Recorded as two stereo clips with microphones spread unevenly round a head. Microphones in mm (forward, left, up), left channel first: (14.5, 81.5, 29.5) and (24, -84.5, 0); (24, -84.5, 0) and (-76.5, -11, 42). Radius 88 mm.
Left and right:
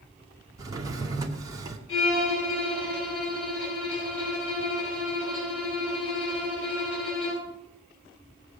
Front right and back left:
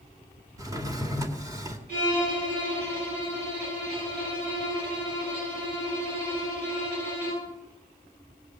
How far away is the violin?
About 9.5 m.